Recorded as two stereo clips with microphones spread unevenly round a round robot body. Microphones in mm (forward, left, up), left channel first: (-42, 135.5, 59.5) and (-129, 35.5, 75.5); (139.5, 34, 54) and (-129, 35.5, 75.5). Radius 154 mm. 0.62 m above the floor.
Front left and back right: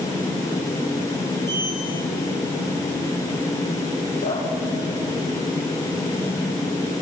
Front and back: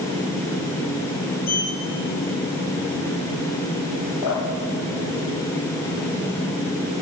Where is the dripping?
5° left, 10 m.